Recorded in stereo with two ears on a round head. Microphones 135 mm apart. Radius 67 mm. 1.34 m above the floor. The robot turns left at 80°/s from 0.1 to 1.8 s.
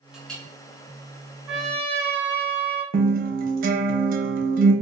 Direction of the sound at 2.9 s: 60° right (ahead or behind).